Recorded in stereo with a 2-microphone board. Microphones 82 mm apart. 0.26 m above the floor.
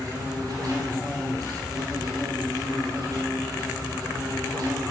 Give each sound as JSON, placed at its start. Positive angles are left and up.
{"t": 0.0, "sound": "an insect", "side_deg": -45, "distance_m": 3.5}